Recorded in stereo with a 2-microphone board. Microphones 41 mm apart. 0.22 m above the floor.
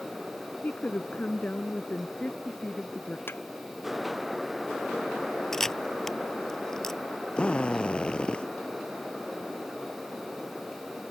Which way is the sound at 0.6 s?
40° left (ahead or behind).